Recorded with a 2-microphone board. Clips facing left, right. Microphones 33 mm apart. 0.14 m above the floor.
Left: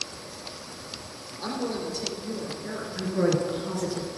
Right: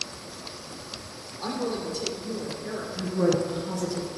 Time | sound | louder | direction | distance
1.4 | a woman speaking | right 1 dB | 5° left (ahead or behind) | 2.5 m
3.0 | a woman speaking | even | 25° left (ahead or behind) | 2 m